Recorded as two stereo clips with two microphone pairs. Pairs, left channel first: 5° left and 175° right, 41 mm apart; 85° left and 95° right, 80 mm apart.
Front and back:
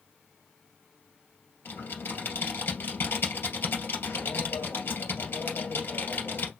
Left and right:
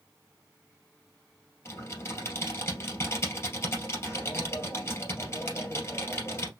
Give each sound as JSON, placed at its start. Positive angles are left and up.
{"t": 1.6, "sound": "typing on a keyboard", "azimuth_deg": 30, "distance_m": 2.5}